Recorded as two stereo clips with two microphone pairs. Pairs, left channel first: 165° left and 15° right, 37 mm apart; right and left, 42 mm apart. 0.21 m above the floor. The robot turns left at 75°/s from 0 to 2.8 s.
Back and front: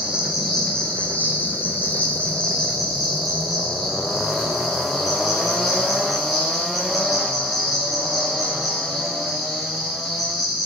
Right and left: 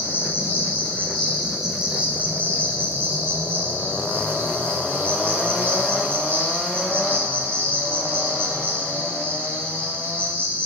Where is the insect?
65° right, 4 m; by 10.7 s 85° left, 4 m.